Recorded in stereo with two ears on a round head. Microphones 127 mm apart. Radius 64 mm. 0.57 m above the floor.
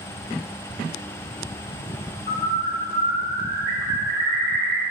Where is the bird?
45° left (ahead or behind), 2.5 m.